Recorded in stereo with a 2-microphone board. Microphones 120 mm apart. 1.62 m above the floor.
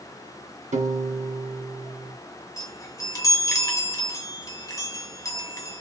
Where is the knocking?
No knocking in this recording.